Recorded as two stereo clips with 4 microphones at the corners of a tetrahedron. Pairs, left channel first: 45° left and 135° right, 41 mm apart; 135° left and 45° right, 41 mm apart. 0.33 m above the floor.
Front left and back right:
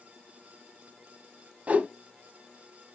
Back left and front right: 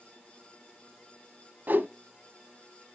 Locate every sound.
1.7 s a whoosh: 80° right, 0.6 m